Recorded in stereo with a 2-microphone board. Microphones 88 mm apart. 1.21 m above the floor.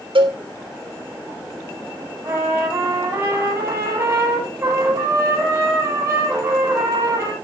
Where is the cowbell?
80° right, 3.5 m.